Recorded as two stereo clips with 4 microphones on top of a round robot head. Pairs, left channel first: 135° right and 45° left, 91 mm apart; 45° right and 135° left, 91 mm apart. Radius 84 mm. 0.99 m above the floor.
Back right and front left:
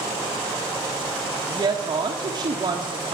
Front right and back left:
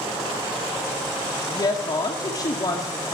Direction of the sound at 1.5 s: Straight ahead.